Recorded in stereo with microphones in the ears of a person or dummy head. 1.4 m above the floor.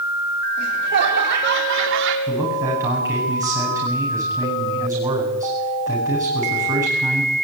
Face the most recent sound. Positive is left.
turn(degrees=-15)  # may be behind; listen again after turning